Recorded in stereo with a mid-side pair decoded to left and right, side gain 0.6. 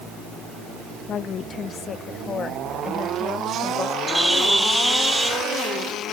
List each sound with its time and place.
1.1 s a woman speaking: 45° left; by 4.0 s 30° left
4.1 s a bird: straight ahead